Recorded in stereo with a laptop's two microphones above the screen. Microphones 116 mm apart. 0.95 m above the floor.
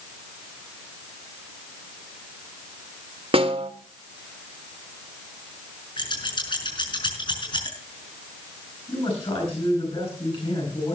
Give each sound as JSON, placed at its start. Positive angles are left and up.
{"t": 3.3, "sound": "a snare drum", "side_deg": -50, "distance_m": 1.7}
{"t": 6.0, "sound": "scissors", "side_deg": 40, "distance_m": 6.0}
{"t": 8.9, "sound": "a man speaking", "side_deg": 50, "distance_m": 8.5}